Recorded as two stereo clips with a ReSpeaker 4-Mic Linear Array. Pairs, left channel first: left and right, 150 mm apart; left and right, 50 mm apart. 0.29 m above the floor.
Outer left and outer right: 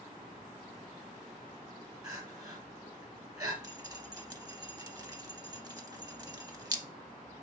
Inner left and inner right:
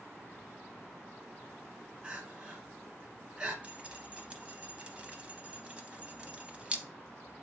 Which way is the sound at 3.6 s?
25° right (ahead or behind).